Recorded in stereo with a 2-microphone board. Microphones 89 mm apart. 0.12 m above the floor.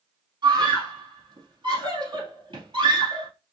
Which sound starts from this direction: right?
A scream, at 0.4 s.